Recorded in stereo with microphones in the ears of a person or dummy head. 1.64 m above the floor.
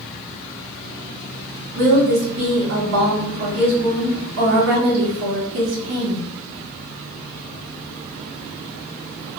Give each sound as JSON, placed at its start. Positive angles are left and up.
{"t": 1.8, "sound": "a woman speaking", "side_deg": -70, "distance_m": 1.4}